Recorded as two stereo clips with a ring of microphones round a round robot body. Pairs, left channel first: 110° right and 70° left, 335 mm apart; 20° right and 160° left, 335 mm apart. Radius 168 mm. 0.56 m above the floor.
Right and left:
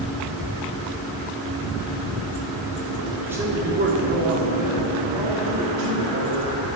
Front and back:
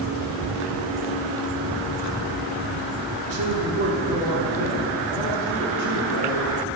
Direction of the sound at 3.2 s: 155° left.